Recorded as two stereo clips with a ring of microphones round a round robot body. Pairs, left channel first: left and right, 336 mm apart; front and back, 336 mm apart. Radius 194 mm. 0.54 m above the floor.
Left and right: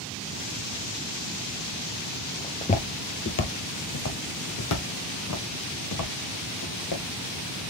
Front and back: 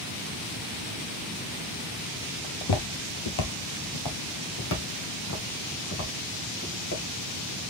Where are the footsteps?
10° left, 0.8 m; by 7.0 s 55° left, 3 m.